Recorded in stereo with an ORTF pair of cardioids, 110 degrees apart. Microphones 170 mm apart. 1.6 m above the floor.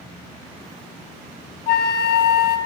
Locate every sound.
1.7 s a flute: 70° left, 0.6 m